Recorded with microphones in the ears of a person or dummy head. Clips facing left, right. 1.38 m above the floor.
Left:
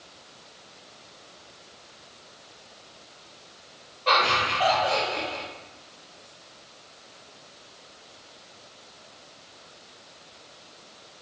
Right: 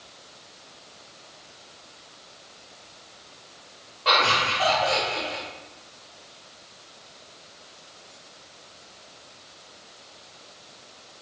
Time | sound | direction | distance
4.0 | laughter | 80° right | 2.0 m